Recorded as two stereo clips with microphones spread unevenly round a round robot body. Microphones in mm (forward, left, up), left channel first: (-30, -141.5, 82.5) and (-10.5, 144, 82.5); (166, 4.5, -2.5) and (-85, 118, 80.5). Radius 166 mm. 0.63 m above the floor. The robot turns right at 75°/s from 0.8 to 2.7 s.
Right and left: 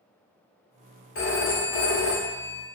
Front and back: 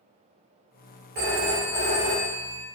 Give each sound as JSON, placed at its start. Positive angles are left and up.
{"t": 1.1, "sound": "a phone ringing", "azimuth_deg": -140, "distance_m": 1.0}